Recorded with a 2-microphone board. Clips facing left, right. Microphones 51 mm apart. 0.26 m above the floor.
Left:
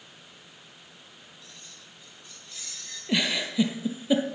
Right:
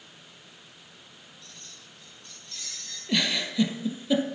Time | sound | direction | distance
1.4 | keys jangling | 5° left (ahead or behind) | 6 m
3.1 | a giggle | 15° left (ahead or behind) | 1.6 m